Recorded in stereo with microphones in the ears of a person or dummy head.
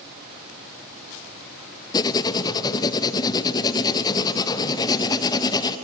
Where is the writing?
20° left (ahead or behind), 0.7 m.